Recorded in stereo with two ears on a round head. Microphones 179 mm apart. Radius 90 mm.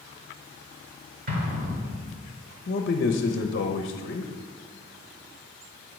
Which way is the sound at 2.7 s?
45° left (ahead or behind).